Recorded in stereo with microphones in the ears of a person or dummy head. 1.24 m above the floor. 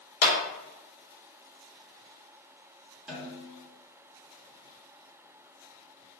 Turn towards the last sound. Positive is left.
turn(degrees=-5)  # may be behind; listen again after turning